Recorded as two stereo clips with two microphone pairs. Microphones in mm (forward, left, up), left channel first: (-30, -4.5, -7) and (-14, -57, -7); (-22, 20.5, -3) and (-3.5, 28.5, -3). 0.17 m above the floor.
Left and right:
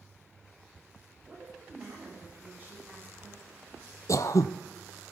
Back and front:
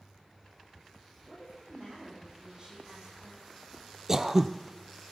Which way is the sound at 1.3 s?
15° right.